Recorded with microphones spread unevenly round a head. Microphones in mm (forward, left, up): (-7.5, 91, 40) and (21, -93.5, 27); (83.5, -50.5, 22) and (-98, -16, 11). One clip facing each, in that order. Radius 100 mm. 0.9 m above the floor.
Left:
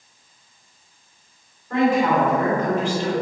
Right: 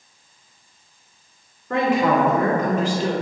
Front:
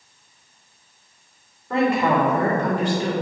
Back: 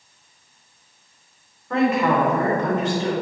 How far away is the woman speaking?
About 2 m.